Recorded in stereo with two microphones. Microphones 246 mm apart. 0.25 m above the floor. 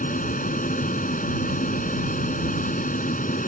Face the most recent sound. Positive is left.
turn(degrees=30)  # may be behind; listen again after turning